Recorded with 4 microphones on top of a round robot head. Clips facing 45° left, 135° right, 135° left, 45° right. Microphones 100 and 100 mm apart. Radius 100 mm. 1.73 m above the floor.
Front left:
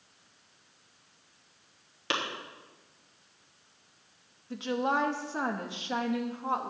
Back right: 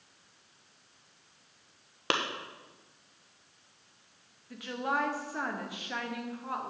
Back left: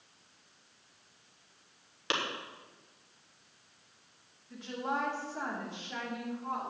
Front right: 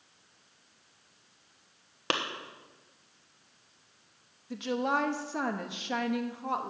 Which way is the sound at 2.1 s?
90° right.